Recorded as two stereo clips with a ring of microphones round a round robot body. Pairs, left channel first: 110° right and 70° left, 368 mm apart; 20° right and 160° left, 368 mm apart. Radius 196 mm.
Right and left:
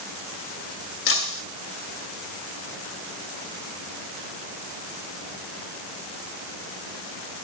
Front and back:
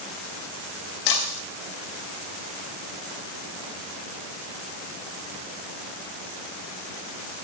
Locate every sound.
1.1 s breaking glass: 55° right, 2.5 m